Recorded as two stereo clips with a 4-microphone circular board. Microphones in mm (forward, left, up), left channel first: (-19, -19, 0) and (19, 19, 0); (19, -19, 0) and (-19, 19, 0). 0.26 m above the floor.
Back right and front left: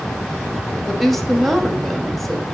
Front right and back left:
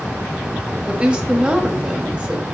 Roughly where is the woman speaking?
Behind left.